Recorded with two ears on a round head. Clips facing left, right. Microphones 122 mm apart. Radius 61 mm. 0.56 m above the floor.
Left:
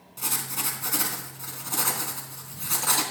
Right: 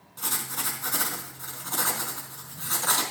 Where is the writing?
15° left (ahead or behind), 3.5 m.